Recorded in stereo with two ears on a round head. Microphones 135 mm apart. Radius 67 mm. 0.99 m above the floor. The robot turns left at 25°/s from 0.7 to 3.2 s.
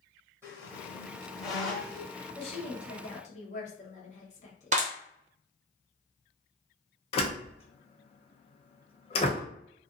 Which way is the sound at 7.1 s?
40° left (ahead or behind).